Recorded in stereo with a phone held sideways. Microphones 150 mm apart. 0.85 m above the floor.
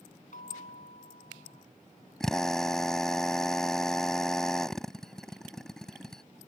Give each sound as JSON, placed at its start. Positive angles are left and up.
{"t": 0.3, "sound": "a bell", "side_deg": 70}
{"t": 2.2, "sound": "a drill", "side_deg": 5}